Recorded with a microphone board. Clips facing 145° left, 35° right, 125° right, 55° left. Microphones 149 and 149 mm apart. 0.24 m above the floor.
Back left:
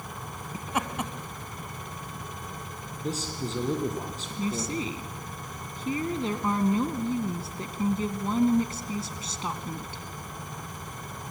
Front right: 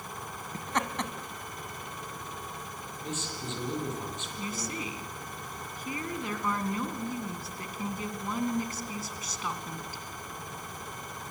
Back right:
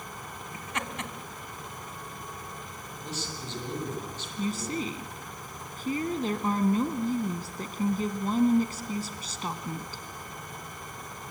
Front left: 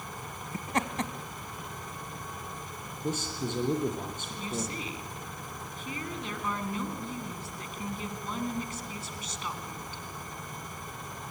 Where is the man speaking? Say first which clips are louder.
Back left 6 dB, front left 7 dB; 95° left, 7 m.